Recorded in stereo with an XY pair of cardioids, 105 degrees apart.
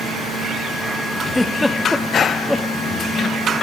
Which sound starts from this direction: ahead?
A giggle, at 1.3 s.